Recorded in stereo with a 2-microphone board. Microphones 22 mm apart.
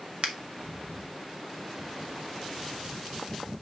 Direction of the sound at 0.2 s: 50° right (ahead or behind).